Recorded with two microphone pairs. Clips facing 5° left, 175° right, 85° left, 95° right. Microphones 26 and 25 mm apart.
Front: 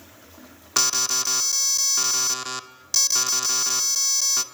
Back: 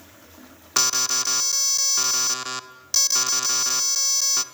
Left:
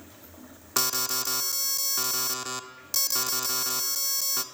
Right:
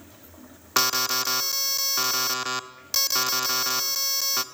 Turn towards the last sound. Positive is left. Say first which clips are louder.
# even, right 5 dB
turn(degrees=-85)